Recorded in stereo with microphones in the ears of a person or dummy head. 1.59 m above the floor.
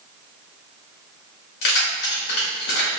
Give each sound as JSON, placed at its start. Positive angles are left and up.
{"t": 1.6, "sound": "keys jangling", "side_deg": 65, "distance_m": 1.6}